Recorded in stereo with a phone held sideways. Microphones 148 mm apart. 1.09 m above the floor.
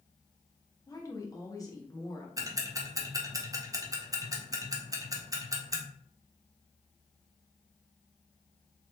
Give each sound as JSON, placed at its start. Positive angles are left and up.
{"t": 0.9, "sound": "a woman speaking", "side_deg": 25, "distance_m": 0.8}
{"t": 2.4, "sound": "ticking", "side_deg": -25, "distance_m": 0.6}